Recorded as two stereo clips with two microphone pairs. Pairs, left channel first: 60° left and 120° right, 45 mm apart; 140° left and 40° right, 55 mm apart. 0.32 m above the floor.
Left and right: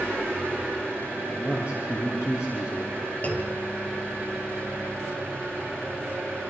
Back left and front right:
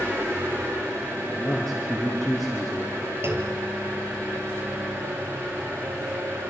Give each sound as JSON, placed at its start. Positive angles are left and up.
{"t": 0.0, "sound": "an engine running", "azimuth_deg": 0, "distance_m": 8.5}
{"t": 1.3, "sound": "a man speaking", "azimuth_deg": 55, "distance_m": 5.5}
{"t": 3.2, "sound": "a clunk", "azimuth_deg": 5, "distance_m": 3.5}